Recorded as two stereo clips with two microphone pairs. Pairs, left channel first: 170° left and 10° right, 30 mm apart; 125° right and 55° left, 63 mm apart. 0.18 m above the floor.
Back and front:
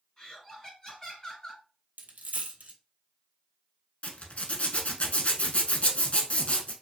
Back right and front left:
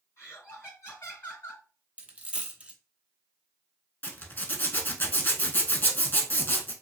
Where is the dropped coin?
20° right, 0.6 m.